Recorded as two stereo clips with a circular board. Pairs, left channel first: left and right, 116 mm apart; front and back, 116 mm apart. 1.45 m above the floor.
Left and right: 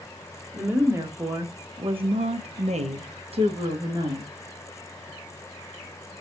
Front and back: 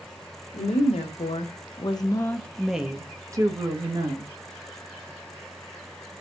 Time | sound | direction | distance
0.5 | a woman speaking | 15° right | 1.2 m